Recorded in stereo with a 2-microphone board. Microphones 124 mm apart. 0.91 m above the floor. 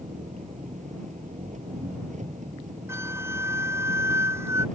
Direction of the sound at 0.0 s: 85° right.